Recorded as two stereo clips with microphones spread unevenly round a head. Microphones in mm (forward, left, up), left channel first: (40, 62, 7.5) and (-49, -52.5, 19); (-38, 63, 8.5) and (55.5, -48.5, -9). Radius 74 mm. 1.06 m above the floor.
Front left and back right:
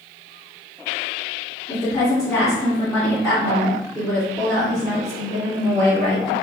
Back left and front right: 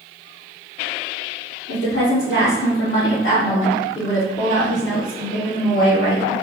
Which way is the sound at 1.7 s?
120° left.